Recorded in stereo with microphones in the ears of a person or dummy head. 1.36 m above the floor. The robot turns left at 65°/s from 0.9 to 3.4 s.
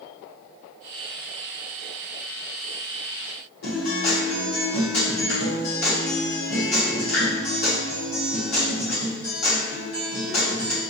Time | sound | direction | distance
3.6 | a guitar | 60° left (ahead or behind) | 1.4 m